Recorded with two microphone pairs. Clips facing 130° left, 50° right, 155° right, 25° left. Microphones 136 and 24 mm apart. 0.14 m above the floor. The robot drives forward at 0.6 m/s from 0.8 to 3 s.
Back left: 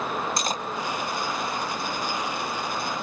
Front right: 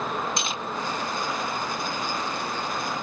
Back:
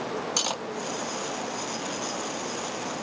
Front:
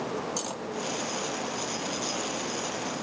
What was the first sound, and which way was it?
Cutlery clinking, 175° left.